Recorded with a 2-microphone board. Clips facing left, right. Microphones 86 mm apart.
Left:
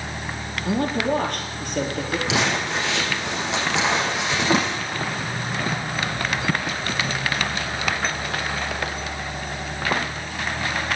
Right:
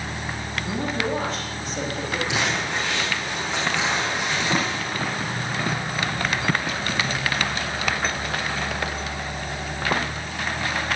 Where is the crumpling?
75° left (ahead or behind), 5.5 m.